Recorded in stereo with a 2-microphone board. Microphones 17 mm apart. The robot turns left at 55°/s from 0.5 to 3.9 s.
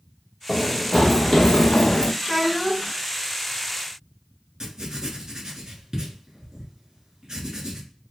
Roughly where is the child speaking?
Centre.